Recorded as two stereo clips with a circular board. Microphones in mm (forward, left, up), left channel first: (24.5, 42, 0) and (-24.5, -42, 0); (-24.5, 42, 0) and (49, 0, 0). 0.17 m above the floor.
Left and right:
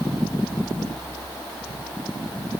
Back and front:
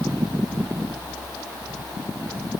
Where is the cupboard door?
I don't hear a cupboard door.